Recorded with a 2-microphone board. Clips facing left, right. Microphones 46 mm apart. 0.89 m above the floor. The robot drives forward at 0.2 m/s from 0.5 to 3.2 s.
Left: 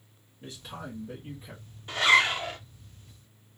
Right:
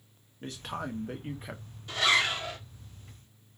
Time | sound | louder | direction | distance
0.4 | a man speaking | right 4 dB | 60° right (ahead or behind) | 0.8 m
1.9 | a zipper | left 4 dB | 30° left (ahead or behind) | 0.9 m